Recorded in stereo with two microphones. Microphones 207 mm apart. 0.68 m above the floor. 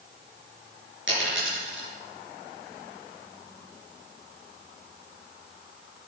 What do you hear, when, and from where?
1.1 s a dropped coin: 70° right (ahead or behind), 5 m